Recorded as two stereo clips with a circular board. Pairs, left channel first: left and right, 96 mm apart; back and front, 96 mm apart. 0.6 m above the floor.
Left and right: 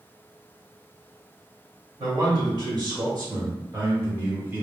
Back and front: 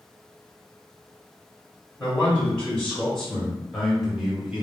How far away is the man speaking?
About 1.9 m.